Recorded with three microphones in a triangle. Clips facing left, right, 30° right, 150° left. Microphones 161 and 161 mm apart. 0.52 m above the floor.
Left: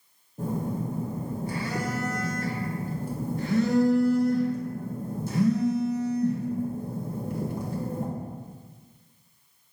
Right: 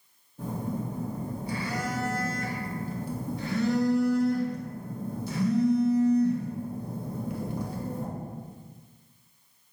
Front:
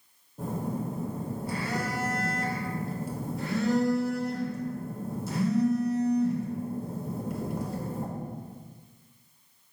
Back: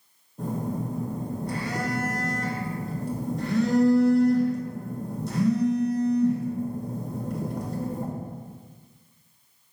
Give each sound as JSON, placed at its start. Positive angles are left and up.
{"t": 0.4, "sound": "a phone buzzing", "azimuth_deg": 55, "distance_m": 1.1}